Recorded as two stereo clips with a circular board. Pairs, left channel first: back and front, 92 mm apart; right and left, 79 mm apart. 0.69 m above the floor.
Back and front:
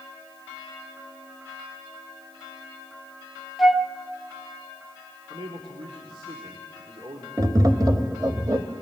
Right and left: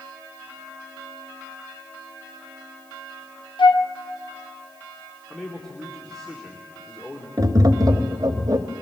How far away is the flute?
About 0.8 m.